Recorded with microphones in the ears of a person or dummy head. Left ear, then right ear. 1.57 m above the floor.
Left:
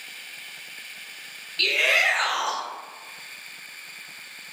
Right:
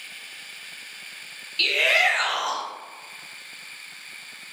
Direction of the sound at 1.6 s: 5° right (ahead or behind).